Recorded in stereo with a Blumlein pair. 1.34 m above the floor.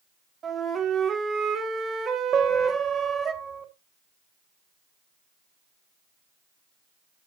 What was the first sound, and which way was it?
A flute, 20° right.